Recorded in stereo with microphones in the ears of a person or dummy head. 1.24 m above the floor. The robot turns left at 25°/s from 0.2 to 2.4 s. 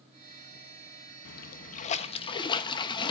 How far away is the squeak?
I don't hear a squeak.